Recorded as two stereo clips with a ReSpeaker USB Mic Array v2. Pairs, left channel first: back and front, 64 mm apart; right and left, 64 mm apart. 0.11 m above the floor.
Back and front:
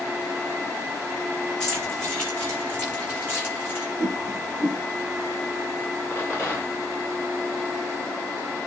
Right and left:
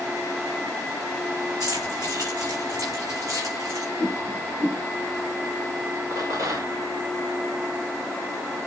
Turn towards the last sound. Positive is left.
turn(degrees=115)